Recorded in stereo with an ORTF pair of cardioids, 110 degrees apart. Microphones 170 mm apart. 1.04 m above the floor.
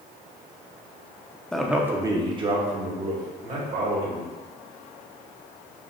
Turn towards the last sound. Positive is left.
turn(degrees=-55)